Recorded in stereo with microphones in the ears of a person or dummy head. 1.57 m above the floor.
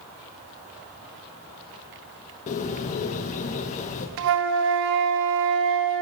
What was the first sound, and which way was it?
A bird, 40° left (ahead or behind).